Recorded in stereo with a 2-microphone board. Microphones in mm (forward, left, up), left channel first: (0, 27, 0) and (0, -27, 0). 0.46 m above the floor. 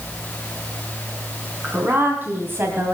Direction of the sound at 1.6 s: 35° right (ahead or behind).